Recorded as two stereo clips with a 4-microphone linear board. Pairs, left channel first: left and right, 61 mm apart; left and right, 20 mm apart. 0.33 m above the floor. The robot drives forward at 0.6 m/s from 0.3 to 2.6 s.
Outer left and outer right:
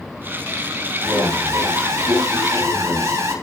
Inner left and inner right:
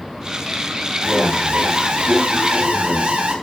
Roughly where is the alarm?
Right.